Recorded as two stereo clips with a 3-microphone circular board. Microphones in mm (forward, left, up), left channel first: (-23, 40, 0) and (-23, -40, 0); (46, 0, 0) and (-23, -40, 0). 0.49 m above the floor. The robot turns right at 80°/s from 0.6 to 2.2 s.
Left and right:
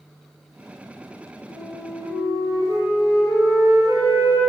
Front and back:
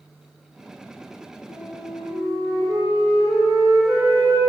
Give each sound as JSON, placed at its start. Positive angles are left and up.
{"t": 1.5, "sound": "a flute", "azimuth_deg": 175, "distance_m": 4.0}